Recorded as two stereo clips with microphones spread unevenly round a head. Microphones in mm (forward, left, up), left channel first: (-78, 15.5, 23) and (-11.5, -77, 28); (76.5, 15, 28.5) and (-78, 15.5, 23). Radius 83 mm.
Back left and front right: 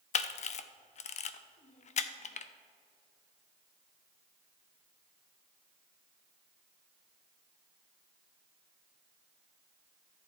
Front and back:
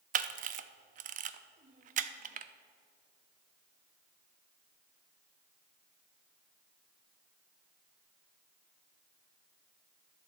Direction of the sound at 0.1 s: 145° left.